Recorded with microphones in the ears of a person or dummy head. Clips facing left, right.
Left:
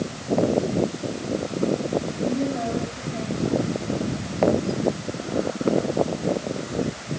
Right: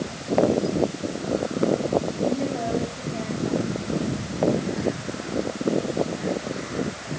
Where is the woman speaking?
Centre (ahead or behind), 9.5 m.